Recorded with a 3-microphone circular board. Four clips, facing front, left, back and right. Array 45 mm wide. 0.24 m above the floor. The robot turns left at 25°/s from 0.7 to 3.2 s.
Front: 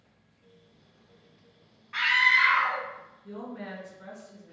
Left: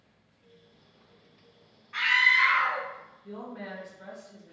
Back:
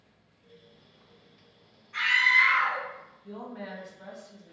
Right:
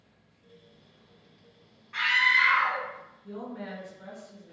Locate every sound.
1.9 s a scream: 5° left, 1.2 m; by 2.8 s 15° right, 1.2 m
3.2 s a woman speaking: 155° left, 1.8 m